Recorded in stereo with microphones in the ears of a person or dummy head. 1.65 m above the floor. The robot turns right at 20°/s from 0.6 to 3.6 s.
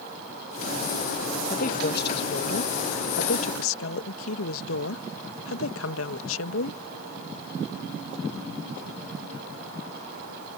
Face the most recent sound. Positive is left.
turn(degrees=90)